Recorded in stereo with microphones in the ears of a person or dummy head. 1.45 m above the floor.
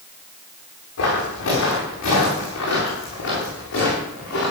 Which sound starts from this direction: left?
Footsteps, at 1.0 s.